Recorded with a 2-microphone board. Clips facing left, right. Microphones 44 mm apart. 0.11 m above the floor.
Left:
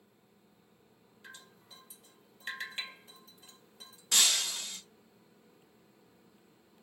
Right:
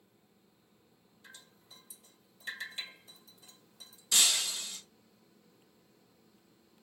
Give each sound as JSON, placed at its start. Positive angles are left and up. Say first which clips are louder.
{"t": 1.2, "sound": "dripping", "louder": "left 4 dB", "side_deg": 40, "distance_m": 1.6}
{"t": 4.1, "sound": "breaking glass", "louder": "left 1 dB", "side_deg": 45, "distance_m": 1.2}